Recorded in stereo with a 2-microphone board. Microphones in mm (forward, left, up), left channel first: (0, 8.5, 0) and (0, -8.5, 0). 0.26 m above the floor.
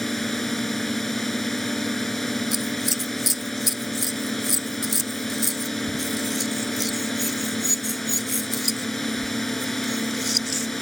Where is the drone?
15° left (ahead or behind).